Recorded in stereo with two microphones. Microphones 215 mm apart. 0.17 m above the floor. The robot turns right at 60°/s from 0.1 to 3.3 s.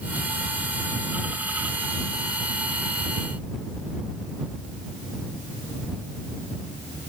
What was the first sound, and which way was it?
Only background noise.